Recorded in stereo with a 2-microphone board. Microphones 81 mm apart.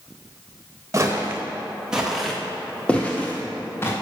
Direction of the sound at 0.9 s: 35° right (ahead or behind).